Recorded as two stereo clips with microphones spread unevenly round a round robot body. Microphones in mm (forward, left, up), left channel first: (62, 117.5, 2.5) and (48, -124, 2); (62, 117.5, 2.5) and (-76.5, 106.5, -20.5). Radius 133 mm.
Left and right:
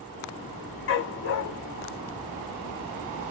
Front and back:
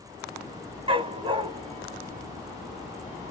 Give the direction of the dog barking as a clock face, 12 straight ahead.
8 o'clock.